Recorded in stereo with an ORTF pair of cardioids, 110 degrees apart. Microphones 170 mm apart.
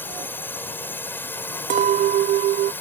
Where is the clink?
50° right.